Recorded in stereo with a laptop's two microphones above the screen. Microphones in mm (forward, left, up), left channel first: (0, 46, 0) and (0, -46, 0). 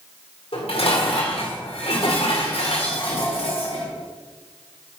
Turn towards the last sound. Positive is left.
turn(degrees=85)